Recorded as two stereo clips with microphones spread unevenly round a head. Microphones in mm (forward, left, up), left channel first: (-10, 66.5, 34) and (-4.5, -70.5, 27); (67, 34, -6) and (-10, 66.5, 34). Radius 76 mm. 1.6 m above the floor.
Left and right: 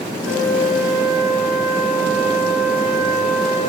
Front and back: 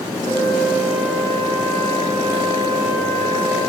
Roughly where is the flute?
Behind.